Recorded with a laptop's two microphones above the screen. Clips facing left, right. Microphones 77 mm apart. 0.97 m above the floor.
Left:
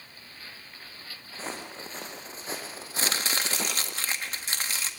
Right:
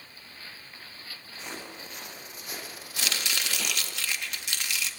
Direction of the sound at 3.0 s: 35° left (ahead or behind).